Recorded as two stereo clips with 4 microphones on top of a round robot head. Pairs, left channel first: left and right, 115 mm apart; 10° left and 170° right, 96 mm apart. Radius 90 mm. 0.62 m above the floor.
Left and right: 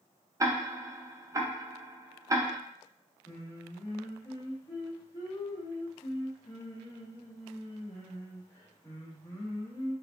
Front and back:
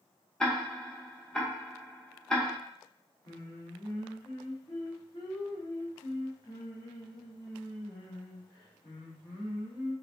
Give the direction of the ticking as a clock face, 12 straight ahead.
2 o'clock.